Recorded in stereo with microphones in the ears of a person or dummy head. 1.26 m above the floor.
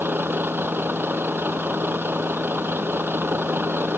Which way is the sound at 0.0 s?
10° right (ahead or behind).